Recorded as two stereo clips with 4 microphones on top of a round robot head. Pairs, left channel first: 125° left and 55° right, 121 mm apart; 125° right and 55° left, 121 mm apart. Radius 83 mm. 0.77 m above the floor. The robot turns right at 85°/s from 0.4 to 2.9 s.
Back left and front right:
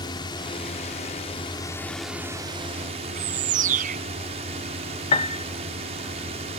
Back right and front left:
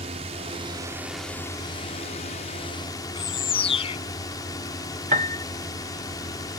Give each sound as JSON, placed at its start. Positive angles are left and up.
{"t": 0.0, "sound": "a drone", "azimuth_deg": 75}
{"t": 3.1, "sound": "a bird", "azimuth_deg": -80}
{"t": 5.1, "sound": "a piano", "azimuth_deg": 85}